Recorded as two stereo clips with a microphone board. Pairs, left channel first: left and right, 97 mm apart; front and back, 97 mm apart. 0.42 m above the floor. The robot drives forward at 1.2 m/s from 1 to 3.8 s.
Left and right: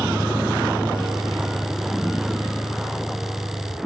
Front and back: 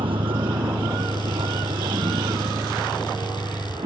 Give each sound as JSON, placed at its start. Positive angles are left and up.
{"t": 0.0, "sound": "a vehicle", "azimuth_deg": -165}